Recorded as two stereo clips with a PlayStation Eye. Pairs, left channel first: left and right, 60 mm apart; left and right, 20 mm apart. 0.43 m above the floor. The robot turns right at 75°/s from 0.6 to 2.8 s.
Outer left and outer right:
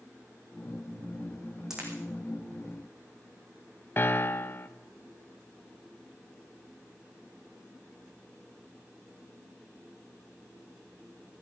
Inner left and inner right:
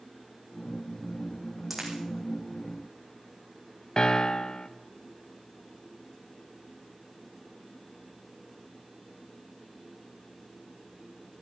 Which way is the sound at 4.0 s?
40° left (ahead or behind).